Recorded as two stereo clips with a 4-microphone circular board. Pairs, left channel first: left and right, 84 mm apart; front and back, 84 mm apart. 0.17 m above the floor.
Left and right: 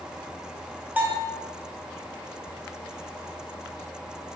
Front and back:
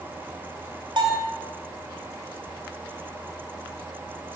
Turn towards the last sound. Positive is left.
turn(degrees=-160)